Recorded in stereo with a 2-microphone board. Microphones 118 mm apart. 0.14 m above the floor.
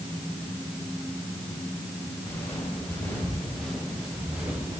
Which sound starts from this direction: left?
Footsteps, at 2.2 s.